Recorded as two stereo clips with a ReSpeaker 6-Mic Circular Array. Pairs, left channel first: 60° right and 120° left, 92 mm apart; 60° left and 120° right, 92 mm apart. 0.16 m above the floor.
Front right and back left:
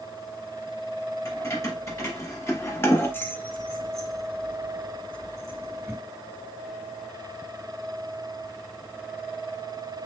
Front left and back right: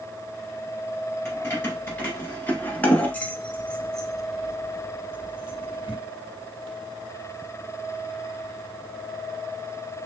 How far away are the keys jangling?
About 1.9 m.